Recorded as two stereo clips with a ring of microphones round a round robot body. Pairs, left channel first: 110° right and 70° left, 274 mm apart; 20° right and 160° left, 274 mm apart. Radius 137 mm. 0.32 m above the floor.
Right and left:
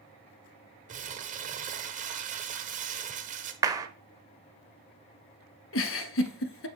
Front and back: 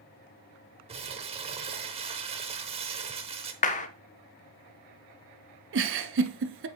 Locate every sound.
0.9 s crumpling: 105° left, 1.0 m
3.6 s a clap: 5° left, 0.8 m
5.7 s a giggle: 155° right, 0.7 m